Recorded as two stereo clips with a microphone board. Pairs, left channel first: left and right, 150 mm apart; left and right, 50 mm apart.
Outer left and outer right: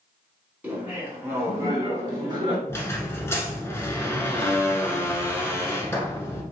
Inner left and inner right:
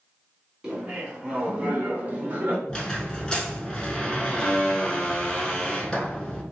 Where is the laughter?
10° right (ahead or behind), 1.4 m; by 2.6 s 30° right (ahead or behind), 1.2 m.